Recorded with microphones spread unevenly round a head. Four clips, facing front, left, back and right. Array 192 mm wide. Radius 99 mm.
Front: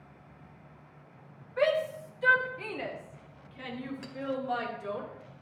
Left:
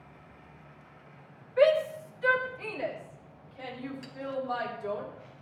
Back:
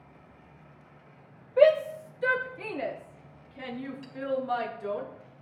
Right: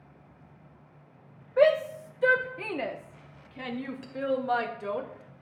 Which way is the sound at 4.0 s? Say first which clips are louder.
Even, front 2 dB; 5° right.